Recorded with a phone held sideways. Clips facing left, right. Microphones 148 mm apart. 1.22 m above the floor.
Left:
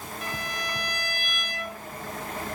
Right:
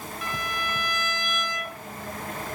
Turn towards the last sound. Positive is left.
turn(degrees=40)  # may be behind; listen again after turning